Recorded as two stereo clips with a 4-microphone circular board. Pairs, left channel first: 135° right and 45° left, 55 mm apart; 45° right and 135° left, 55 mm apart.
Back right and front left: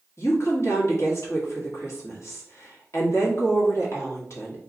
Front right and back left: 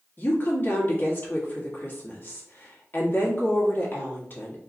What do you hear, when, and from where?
0.2 s a woman speaking: 100° right, 1.8 m